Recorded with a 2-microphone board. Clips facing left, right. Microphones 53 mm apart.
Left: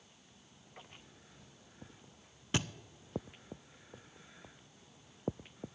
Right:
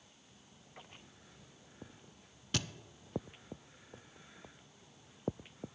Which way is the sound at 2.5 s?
25° left (ahead or behind).